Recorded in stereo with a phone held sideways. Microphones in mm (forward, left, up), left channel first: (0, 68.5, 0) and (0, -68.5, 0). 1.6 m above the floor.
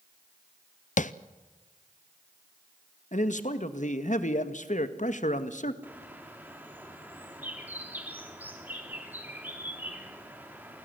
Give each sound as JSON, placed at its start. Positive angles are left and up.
{"t": 1.0, "sound": "tapping", "side_deg": 65, "distance_m": 0.7}
{"t": 3.1, "sound": "a man speaking", "side_deg": 65, "distance_m": 1.8}
{"t": 5.8, "sound": "a bird", "side_deg": -15, "distance_m": 3.5}